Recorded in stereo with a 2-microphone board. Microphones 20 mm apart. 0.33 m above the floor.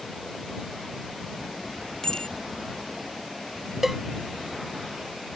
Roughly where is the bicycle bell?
Left.